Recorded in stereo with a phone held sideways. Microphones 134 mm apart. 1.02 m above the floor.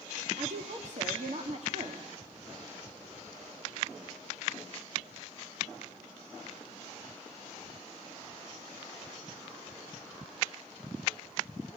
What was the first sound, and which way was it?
A woman speaking, 60° right (ahead or behind).